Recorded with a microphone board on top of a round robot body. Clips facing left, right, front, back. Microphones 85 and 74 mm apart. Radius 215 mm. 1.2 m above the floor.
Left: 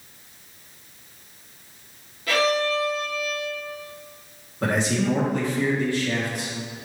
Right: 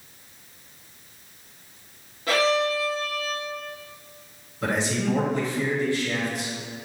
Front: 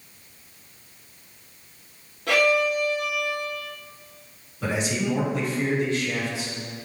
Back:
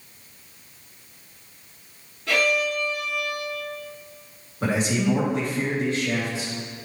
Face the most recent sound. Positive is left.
turn(degrees=130)